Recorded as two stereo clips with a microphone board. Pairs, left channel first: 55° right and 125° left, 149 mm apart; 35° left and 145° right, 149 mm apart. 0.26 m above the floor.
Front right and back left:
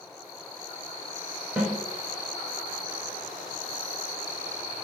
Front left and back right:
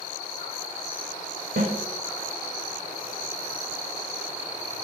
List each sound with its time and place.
1.6 s a snare drum: 150° right, 0.7 m